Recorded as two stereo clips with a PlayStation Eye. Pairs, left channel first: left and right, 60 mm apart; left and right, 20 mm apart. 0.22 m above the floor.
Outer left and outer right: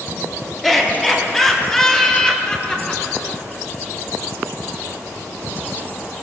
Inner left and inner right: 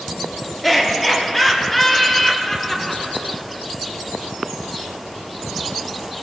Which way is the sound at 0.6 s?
Centre (ahead or behind).